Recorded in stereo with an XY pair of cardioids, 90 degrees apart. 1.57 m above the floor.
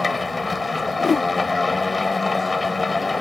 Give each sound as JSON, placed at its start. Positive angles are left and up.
{"t": 0.0, "sound": "a machine running", "azimuth_deg": 25}
{"t": 1.0, "sound": "a whoosh", "azimuth_deg": 45}